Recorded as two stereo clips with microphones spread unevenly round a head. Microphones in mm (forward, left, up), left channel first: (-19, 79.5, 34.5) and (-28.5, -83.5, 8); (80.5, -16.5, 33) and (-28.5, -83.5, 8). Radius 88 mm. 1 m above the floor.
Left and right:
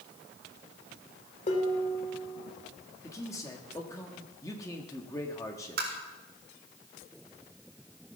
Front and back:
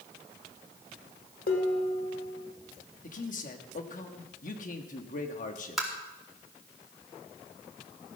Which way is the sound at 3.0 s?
10° left.